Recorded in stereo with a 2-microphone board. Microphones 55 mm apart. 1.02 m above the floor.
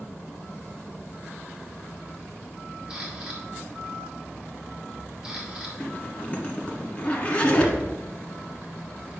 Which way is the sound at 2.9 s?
20° right (ahead or behind).